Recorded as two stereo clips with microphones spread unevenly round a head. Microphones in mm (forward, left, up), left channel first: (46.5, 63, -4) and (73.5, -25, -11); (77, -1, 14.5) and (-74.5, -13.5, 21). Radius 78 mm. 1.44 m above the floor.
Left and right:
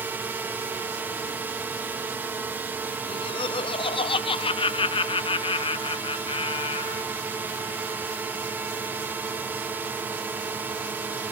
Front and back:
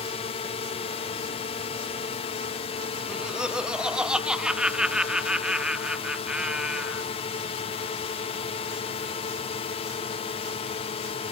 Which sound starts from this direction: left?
Laughter, at 3.1 s.